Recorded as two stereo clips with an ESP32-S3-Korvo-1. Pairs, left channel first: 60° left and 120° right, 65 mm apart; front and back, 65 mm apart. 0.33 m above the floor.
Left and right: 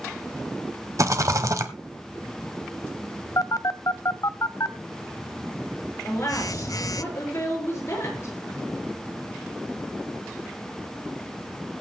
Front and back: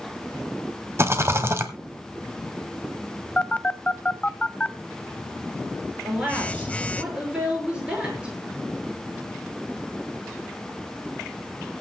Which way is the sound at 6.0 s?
105° left.